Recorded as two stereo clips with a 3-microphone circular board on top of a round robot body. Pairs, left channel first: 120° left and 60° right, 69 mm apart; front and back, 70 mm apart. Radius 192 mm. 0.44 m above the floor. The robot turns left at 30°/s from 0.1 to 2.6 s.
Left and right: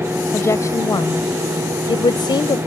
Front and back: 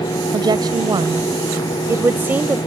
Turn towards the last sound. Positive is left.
turn(degrees=105)